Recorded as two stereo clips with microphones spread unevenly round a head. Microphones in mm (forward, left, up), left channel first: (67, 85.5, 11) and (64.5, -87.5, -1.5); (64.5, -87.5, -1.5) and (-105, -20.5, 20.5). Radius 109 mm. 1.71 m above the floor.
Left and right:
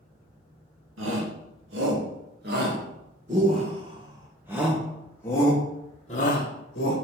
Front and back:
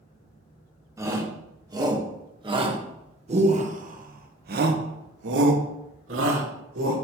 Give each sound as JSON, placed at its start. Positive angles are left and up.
{"t": 1.0, "sound": "a shout", "azimuth_deg": -130, "distance_m": 2.5}